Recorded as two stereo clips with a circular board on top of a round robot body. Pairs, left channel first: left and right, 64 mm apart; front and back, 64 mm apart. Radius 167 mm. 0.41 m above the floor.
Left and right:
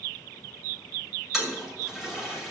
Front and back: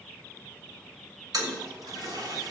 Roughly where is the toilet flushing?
Behind.